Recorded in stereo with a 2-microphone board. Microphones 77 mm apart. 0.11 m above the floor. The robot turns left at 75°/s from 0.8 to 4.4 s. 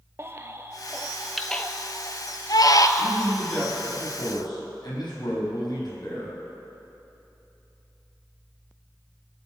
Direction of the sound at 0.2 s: 35° right (ahead or behind).